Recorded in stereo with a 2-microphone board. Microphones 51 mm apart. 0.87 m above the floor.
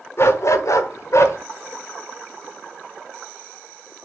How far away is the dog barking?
About 1.1 m.